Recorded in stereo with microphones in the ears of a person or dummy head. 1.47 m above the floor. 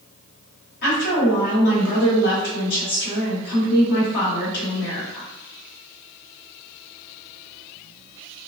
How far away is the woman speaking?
About 1.4 m.